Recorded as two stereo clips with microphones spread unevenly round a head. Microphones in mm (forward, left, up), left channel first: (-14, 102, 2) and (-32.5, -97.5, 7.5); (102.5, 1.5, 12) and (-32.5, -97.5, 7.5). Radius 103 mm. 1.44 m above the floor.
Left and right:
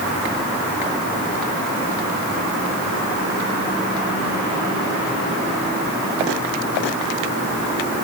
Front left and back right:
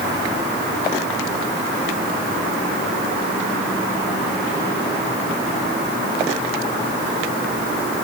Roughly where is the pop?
No pop in this recording.